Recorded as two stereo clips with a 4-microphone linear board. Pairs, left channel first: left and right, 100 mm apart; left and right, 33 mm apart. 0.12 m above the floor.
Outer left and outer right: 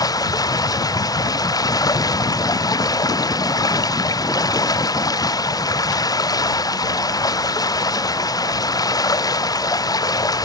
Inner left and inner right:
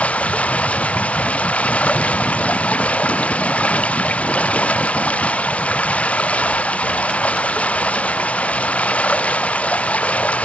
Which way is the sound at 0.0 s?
40° left (ahead or behind).